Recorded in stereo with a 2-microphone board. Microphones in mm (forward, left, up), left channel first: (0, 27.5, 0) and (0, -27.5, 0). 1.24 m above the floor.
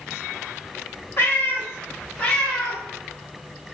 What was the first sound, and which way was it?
A cat meowing, 40° left (ahead or behind).